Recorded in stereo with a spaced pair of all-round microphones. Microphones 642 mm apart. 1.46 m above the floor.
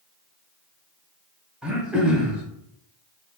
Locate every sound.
1.6 s throat clearing: centre (ahead or behind), 0.6 m